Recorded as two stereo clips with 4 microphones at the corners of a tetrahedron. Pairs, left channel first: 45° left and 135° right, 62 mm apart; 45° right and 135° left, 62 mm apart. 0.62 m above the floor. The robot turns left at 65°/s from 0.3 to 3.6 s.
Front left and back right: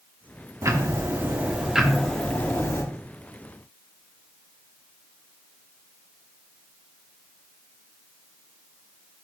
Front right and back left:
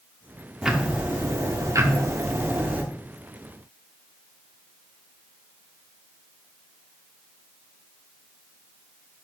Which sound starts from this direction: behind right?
Ticking, at 0.6 s.